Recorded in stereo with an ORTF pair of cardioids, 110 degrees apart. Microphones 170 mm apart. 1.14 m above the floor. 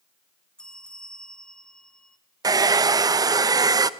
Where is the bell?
5° left, 1.7 m.